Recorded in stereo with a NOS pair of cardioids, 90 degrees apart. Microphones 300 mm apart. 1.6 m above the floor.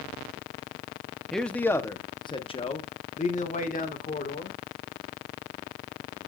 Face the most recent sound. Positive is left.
turn(degrees=30)